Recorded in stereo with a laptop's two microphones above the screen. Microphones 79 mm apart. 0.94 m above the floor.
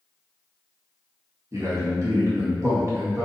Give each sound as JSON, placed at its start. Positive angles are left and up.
{"t": 1.5, "sound": "a man speaking", "side_deg": -40, "distance_m": 1.3}